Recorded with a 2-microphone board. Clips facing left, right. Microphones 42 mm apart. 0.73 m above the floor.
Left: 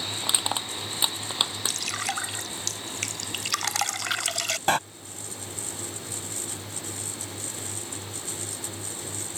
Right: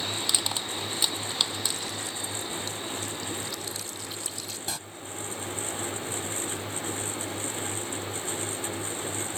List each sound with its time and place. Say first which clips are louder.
0.2 s crushing: left 2 dB; 20° left (ahead or behind)
1.7 s dripping: left 4 dB; 85° left
4.7 s a door slam: left 15 dB; 50° left (ahead or behind)